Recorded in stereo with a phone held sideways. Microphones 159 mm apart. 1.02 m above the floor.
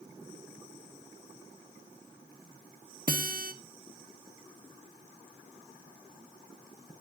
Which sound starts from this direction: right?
A guitar, at 3.1 s.